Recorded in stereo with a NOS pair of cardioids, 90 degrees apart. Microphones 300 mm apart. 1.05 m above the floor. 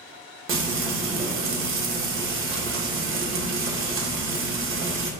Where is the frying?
45° right, 1.0 m.